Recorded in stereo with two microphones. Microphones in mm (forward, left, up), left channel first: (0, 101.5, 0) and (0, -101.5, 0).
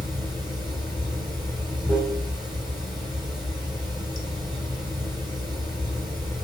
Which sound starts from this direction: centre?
Running water, at 0.0 s.